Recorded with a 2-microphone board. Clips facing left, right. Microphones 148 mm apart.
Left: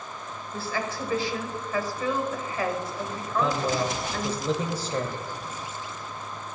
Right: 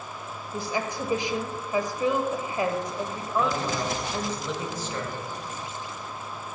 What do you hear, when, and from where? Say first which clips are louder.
0.5 s a woman speaking: right 1 dB; 20° right (ahead or behind), 1.1 m
3.3 s a man speaking: left 1 dB; 35° left (ahead or behind), 1.0 m